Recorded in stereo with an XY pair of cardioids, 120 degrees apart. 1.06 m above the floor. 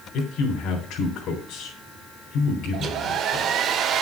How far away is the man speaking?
About 3 m.